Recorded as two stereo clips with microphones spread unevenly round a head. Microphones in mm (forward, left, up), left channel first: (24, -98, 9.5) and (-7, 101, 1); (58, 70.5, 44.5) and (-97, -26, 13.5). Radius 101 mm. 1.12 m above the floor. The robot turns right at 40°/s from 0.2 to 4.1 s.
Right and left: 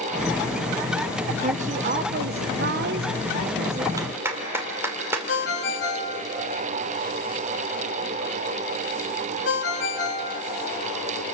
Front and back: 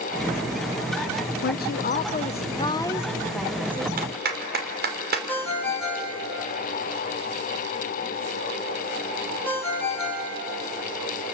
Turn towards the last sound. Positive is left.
turn(degrees=-50)